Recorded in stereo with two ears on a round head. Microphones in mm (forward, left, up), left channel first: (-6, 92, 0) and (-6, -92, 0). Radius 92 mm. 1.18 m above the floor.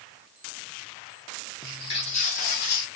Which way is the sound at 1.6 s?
20° left (ahead or behind).